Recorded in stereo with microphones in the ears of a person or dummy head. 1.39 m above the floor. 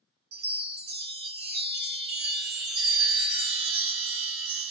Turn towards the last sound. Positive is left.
turn(degrees=-50)  # may be behind; listen again after turning